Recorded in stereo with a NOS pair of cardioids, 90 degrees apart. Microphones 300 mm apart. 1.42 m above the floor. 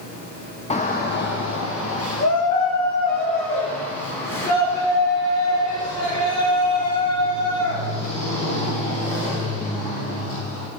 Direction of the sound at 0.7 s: 20° left.